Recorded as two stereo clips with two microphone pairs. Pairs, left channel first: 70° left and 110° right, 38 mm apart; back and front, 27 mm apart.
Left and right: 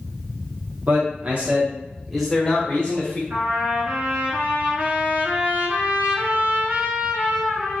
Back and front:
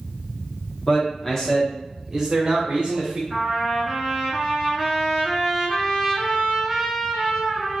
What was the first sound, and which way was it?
A man speaking, 130° right.